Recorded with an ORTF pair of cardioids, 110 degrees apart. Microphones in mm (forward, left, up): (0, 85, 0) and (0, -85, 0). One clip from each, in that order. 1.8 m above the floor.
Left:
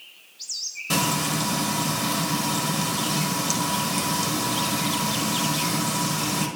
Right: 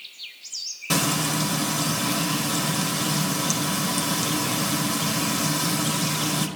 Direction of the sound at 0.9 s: 15° right.